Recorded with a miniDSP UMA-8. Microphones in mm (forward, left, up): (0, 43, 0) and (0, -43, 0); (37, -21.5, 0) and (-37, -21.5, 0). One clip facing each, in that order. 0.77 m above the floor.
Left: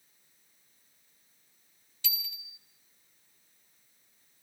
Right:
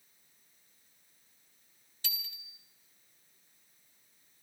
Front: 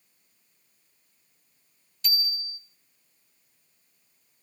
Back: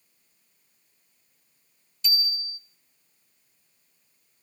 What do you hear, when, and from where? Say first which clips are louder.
2.0 s a bicycle bell: left 2 dB, back 2 dB; 40° right, 2.5 m